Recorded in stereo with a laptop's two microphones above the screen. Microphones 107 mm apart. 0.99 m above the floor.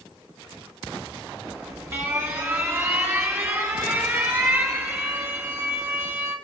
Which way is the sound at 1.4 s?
25° right (ahead or behind).